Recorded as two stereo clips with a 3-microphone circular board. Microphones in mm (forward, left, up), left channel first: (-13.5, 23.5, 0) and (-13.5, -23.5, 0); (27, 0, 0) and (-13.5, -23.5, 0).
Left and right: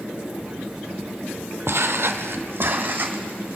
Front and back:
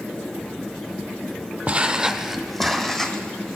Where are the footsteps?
95° right, 0.7 m; by 3.6 s 40° right, 1.5 m.